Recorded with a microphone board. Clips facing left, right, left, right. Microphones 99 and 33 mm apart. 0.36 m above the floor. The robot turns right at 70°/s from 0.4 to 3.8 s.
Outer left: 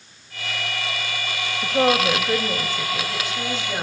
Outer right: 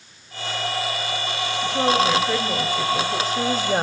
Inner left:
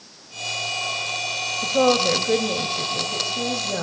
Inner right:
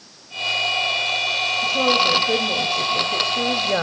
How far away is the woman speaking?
About 2.5 m.